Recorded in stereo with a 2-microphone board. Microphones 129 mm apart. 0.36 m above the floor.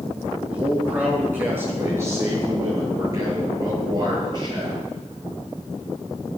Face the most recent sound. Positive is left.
turn(degrees=-35)  # may be behind; listen again after turning